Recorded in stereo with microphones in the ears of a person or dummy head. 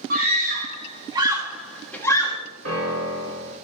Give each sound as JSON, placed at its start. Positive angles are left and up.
{"t": 0.1, "sound": "a scream", "side_deg": -45, "distance_m": 2.5}
{"t": 2.6, "sound": "a piano", "side_deg": -75, "distance_m": 2.5}